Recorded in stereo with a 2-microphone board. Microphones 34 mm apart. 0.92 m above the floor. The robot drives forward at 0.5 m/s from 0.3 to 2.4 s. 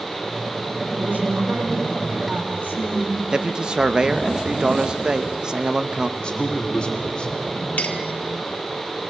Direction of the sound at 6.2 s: 30° left (ahead or behind).